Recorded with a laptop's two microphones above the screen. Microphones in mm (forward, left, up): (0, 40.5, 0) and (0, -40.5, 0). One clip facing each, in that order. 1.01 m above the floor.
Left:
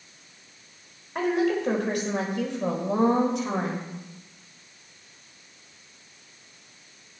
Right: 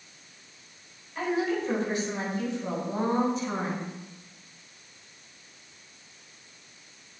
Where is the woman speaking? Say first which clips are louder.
Left 4 dB; 60° left (ahead or behind), 4.5 m; by 3.9 s 75° left (ahead or behind), 5 m.